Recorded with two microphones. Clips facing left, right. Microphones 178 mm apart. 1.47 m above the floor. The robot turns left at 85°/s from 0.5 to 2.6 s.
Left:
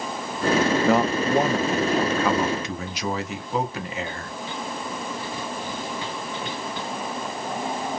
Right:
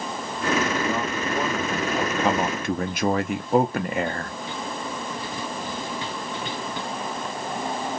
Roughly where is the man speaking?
Left.